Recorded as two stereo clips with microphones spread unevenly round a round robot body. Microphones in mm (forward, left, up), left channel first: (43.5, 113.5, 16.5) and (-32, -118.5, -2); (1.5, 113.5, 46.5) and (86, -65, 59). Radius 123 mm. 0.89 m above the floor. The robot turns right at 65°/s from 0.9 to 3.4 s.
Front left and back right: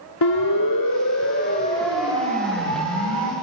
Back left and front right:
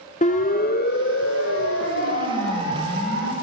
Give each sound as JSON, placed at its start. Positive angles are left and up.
{"t": 0.2, "sound": "a siren", "azimuth_deg": 65, "distance_m": 2.0}